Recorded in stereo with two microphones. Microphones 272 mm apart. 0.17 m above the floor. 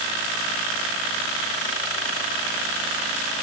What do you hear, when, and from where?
Only background noise.